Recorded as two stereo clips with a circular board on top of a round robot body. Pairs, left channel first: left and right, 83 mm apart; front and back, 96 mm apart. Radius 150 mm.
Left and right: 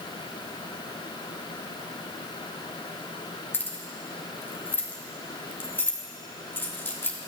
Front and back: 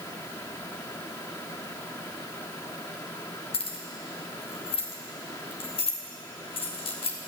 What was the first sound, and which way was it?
Keys jangling, 25° left.